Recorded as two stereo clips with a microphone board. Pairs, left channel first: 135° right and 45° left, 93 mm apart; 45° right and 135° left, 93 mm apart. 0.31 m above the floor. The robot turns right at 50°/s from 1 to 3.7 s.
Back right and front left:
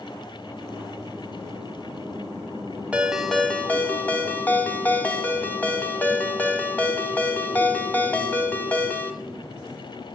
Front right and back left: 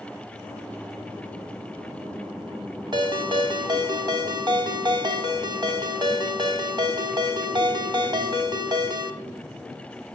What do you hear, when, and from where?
2.9 s a ringtone: 115° left, 1.2 m; by 9.1 s 155° left, 1.2 m